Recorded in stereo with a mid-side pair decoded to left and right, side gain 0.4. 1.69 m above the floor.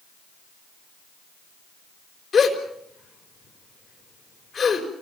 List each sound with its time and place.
2.3 s a gasp: 45° left, 5 m